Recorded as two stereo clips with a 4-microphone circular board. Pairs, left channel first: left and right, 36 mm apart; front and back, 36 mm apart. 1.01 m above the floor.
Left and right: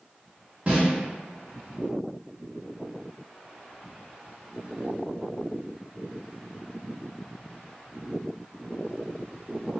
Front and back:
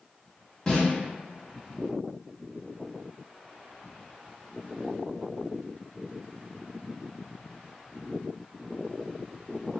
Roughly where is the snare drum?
Ahead right.